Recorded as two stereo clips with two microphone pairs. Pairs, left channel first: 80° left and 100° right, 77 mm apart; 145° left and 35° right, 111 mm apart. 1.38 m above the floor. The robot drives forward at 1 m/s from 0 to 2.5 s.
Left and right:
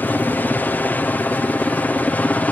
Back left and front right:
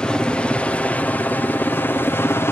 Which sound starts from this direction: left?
A helicopter, at 0.0 s.